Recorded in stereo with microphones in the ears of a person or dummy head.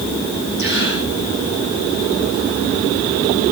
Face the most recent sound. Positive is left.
turn(degrees=60)  # may be behind; listen again after turning